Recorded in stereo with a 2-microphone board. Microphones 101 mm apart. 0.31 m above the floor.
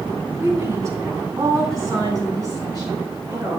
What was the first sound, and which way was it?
A woman speaking, 25° right (ahead or behind).